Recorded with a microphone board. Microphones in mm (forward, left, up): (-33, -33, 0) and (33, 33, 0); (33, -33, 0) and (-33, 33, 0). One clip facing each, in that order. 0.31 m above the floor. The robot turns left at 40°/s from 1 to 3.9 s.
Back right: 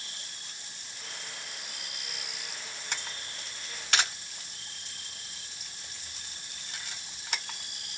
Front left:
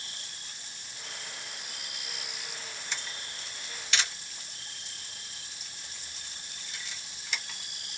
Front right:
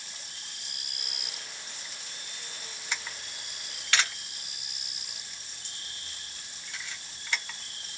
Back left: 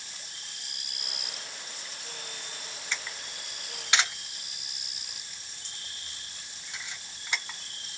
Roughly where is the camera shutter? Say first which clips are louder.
Back right 2 dB, even; behind right.